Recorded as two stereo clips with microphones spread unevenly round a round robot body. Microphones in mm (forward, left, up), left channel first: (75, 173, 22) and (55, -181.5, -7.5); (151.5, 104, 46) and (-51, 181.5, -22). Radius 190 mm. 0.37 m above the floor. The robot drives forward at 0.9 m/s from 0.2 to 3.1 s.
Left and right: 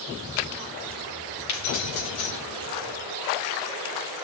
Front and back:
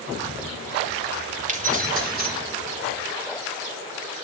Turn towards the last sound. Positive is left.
turn(degrees=125)